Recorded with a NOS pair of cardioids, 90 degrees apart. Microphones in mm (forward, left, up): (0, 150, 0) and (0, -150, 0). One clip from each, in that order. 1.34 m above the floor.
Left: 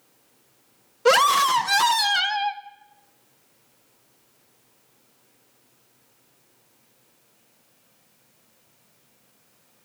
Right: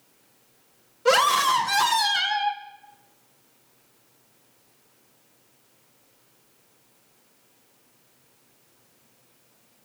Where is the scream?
40° left, 1.5 m.